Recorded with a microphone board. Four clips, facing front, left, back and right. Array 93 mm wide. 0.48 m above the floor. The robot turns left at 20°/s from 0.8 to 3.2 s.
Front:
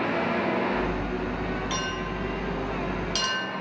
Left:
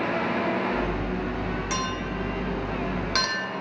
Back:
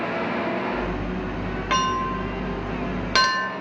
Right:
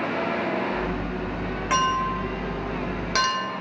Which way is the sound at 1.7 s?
145° right.